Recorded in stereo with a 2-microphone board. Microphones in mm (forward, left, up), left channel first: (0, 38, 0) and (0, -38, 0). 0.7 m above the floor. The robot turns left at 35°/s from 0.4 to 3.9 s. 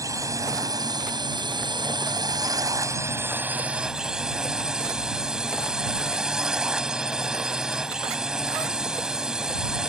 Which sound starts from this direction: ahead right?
A drone, at 0.0 s.